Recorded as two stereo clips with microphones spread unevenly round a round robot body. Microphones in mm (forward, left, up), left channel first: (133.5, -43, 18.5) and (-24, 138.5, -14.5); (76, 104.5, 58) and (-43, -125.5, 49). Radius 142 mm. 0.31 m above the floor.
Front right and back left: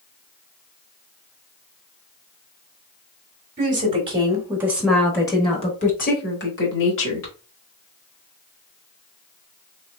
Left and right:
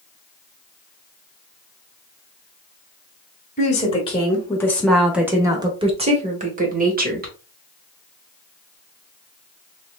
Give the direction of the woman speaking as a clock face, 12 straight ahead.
8 o'clock.